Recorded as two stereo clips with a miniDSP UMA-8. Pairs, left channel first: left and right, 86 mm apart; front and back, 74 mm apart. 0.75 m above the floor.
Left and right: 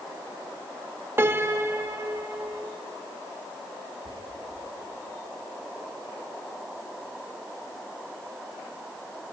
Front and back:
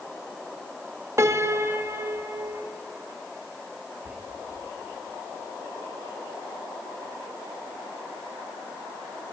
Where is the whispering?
110° right, 10 m.